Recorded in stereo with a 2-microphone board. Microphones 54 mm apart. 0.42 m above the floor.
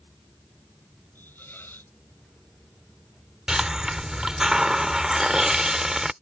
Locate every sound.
1.1 s a hiss: 35° left (ahead or behind)
3.5 s a hiss: 10° right (ahead or behind)